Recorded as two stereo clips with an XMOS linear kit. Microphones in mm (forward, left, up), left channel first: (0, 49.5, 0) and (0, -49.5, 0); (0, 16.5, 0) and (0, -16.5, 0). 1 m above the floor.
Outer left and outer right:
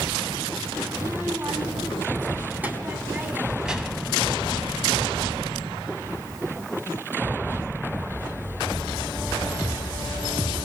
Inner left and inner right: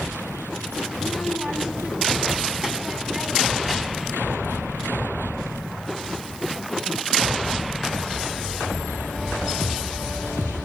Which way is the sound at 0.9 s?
30° right (ahead or behind).